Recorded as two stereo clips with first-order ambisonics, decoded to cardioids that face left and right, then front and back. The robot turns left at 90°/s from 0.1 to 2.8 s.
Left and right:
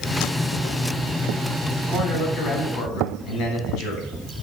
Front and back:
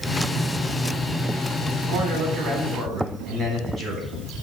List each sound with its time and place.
1.9 s a man speaking: 170° right, 4 m; by 4.1 s 105° left, 4 m